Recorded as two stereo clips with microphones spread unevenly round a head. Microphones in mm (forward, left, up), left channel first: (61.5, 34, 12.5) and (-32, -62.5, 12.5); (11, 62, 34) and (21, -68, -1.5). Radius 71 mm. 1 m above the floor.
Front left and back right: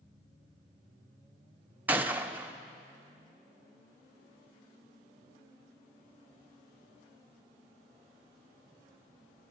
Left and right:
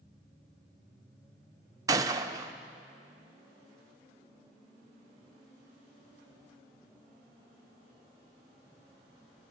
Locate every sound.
1.9 s a gunshot: 60° right, 0.9 m